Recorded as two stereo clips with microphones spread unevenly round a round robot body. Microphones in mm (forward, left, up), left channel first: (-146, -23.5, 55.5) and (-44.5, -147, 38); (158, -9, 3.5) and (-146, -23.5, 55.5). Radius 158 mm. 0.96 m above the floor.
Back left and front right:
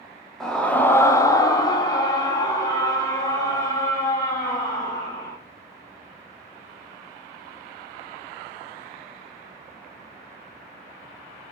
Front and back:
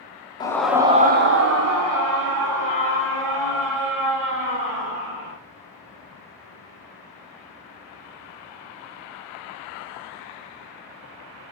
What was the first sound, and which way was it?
A scream, 30° left.